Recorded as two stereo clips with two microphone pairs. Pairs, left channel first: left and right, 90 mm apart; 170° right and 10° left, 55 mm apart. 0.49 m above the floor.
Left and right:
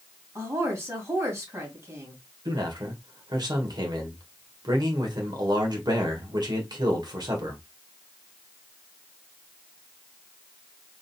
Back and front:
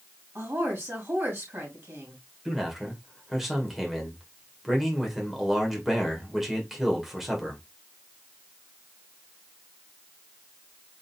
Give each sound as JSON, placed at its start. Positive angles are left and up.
{"t": 0.3, "sound": "a woman speaking", "azimuth_deg": -35, "distance_m": 3.0}
{"t": 2.5, "sound": "a man speaking", "azimuth_deg": -75, "distance_m": 1.8}